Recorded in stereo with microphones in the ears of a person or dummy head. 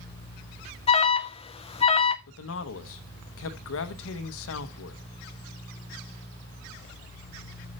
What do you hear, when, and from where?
0.9 s an alarm: 30° left (ahead or behind), 0.5 m
2.3 s a man speaking: 65° left (ahead or behind), 0.9 m